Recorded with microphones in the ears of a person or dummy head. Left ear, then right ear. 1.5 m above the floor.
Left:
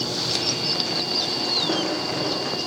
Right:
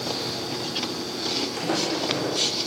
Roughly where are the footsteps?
Right.